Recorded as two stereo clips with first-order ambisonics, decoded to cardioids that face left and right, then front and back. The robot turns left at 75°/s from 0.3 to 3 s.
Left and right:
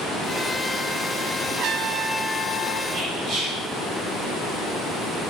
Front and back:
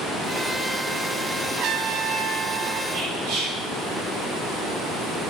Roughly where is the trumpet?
Behind right.